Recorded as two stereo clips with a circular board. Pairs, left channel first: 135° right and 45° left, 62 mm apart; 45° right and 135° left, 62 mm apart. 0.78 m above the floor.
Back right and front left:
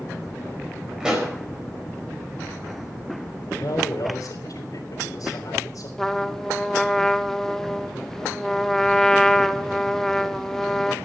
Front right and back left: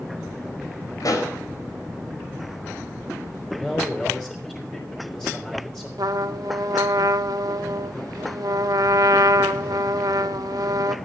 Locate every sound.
1.0 s a pop: 35° right, 4.5 m
3.5 s a man speaking: 120° right, 3 m
6.0 s a trumpet: 140° left, 0.6 m